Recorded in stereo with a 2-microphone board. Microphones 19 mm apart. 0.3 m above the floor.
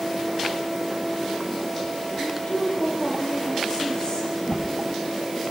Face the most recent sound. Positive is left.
turn(degrees=85)